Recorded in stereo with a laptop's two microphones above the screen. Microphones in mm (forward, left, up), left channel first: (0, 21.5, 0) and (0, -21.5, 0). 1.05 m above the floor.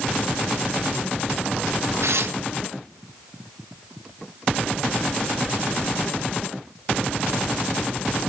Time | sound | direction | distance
2.0 | tearing paper | 75° right (ahead or behind) | 0.9 m